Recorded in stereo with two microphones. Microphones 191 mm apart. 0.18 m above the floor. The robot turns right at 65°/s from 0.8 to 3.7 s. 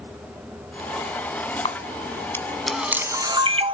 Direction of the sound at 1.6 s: 30° left (ahead or behind).